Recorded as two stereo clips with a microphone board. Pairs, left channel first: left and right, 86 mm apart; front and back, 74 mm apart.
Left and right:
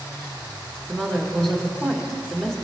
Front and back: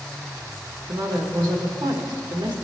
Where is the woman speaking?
175° left, 1.4 m.